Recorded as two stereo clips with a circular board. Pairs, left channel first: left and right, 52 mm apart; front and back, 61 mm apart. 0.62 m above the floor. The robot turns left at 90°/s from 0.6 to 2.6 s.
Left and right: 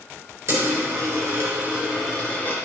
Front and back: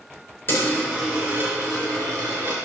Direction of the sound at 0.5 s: 55° right.